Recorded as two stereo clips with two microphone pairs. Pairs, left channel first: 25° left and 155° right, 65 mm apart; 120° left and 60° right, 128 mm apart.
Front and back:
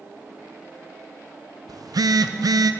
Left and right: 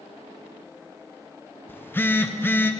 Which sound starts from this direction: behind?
A phone buzzing, at 1.7 s.